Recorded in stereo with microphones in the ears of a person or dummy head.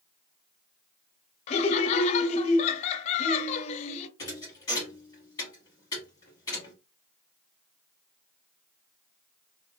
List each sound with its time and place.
1.5 s laughter: 35° left (ahead or behind), 0.5 m
4.2 s a thud: 25° left (ahead or behind), 1.8 m